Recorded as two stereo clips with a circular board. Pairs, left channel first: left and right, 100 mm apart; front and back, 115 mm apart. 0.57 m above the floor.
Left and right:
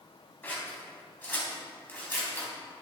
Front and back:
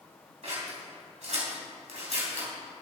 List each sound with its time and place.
0.4 s scissors: 160° left, 3 m